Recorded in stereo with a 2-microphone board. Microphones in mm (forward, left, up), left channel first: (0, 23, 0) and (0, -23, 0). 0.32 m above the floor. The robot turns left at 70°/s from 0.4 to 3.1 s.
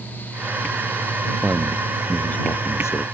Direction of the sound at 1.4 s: 155° right.